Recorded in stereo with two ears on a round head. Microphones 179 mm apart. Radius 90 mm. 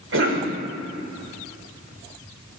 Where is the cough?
70° right (ahead or behind), 2.5 m.